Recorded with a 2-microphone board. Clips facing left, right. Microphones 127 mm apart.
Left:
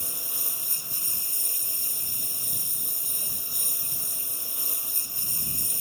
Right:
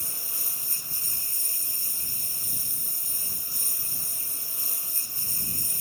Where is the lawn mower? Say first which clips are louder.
Left 3 dB; 15° left (ahead or behind).